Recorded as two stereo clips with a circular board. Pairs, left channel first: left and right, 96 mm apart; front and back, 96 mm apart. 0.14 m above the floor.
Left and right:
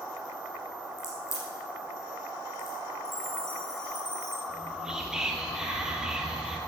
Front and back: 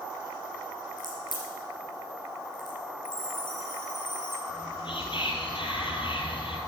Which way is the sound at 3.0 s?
35° right.